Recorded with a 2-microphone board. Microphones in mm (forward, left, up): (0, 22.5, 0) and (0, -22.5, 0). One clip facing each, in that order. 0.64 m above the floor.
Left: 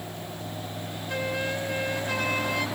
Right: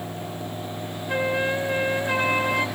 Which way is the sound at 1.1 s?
25° right (ahead or behind).